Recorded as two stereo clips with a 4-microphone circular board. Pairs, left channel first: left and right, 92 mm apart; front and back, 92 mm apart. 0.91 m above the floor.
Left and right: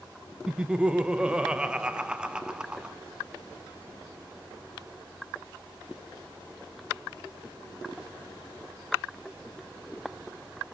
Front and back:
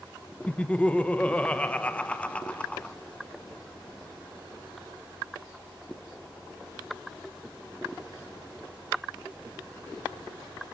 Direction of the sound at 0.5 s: 35° right.